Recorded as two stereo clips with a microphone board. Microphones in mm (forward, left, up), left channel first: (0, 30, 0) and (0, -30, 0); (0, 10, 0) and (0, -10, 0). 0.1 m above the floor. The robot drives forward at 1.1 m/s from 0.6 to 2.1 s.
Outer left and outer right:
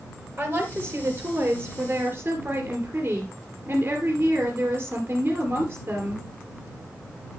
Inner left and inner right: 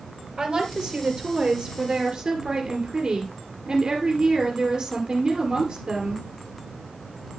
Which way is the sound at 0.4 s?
35° right (ahead or behind).